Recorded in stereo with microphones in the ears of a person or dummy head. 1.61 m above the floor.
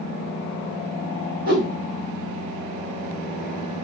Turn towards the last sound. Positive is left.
turn(degrees=-45)  # may be behind; listen again after turning